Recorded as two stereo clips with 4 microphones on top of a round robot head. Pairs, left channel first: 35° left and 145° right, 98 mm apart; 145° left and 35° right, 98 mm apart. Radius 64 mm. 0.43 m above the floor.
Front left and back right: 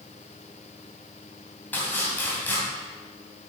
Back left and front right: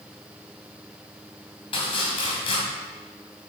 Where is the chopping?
110° left, 2.5 m.